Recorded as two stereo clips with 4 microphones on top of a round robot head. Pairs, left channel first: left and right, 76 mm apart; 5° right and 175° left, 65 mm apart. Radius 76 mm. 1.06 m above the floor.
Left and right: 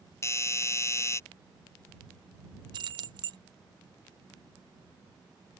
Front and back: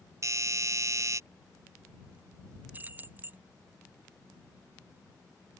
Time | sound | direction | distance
0.2 | a doorbell | 140° left | ?
2.7 | keys jangling | 115° right | ?